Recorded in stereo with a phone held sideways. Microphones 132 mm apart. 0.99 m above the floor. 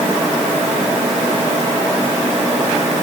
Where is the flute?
No flute in this recording.